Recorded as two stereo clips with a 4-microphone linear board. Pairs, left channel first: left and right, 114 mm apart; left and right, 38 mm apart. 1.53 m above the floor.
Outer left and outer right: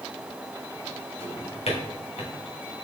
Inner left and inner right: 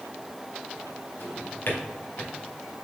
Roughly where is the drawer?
Left.